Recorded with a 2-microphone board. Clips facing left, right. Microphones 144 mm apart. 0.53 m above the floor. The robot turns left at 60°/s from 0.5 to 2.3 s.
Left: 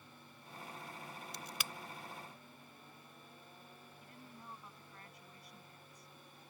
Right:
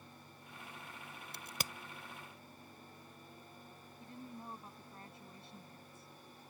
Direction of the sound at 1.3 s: 55° right (ahead or behind).